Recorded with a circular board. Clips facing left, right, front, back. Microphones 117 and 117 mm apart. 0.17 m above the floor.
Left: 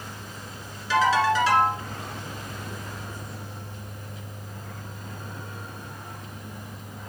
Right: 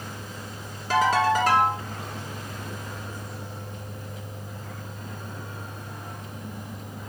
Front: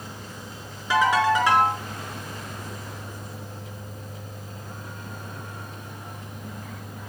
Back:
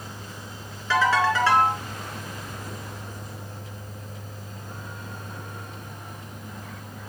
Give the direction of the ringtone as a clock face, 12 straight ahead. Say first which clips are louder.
Even, front 1 dB; 2 o'clock.